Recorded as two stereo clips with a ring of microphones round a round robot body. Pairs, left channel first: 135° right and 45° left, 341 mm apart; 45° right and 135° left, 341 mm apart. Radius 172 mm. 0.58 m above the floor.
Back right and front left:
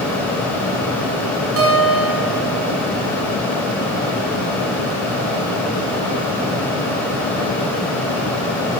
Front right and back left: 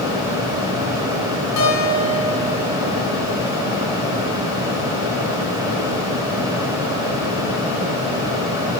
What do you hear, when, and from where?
1.6 s a guitar: 5° right, 5.5 m